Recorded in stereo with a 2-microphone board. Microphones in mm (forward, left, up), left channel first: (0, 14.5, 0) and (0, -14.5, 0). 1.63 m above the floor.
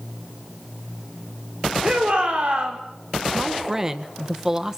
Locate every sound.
1.8 s a shout: 45° right (ahead or behind), 6 m
3.3 s a man speaking: 20° right (ahead or behind), 1.5 m